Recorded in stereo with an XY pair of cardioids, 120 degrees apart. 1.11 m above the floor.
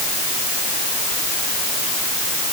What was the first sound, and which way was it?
Only background noise.